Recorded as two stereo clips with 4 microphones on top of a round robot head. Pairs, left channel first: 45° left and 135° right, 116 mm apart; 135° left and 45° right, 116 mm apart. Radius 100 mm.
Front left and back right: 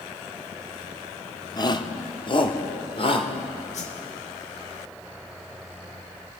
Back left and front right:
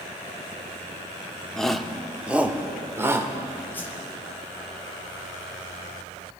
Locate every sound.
1.6 s a shout: 55° left, 1.6 m; by 3.3 s 20° left, 2.5 m
3.7 s a whoosh: 60° left, 2.5 m